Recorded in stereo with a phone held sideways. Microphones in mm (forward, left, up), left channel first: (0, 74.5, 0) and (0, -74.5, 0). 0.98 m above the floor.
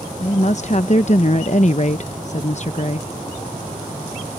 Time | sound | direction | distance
0.2 | a woman speaking | 50° left (ahead or behind) | ?